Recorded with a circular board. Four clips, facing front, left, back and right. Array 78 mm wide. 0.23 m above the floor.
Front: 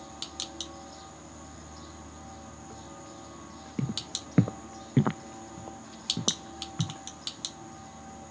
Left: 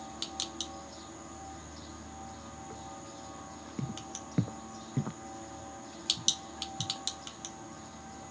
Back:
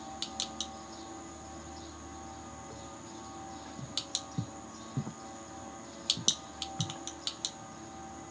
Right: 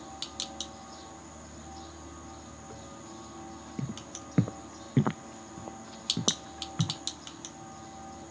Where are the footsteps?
5° right; by 7.0 s 70° right.